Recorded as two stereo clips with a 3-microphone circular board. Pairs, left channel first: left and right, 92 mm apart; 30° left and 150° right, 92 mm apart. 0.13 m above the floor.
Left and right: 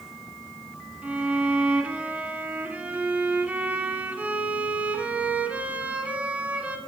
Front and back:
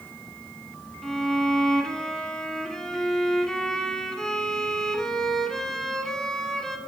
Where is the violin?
45° right, 0.9 m.